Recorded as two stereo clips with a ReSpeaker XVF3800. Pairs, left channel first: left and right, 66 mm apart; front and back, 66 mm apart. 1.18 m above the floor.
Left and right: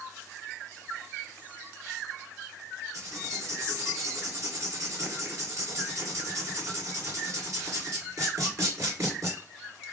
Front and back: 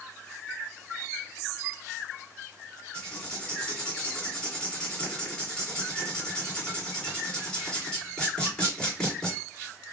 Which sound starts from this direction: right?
Writing, at 2.9 s.